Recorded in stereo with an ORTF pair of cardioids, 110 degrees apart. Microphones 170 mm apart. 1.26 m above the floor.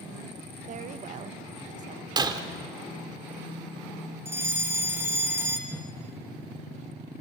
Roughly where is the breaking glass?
Ahead right.